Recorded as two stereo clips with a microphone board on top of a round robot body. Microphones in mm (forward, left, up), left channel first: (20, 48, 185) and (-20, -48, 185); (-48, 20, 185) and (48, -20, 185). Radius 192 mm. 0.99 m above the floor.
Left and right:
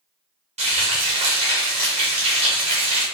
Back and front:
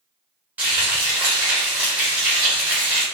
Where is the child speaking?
I don't hear a child speaking.